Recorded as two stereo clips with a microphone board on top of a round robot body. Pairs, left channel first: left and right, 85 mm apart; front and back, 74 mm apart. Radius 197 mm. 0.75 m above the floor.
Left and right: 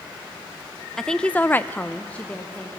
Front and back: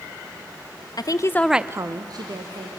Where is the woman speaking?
5° left, 0.7 m; by 2.7 s 165° left, 1.4 m.